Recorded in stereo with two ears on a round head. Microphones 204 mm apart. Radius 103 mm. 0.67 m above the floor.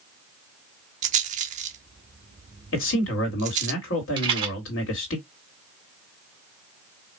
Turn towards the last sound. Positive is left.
turn(degrees=-20)  # may be behind; listen again after turning